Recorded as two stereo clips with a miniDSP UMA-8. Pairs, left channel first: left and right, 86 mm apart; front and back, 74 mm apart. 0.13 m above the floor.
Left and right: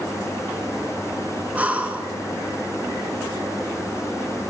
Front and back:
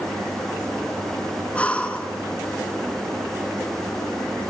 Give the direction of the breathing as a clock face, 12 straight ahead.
1 o'clock.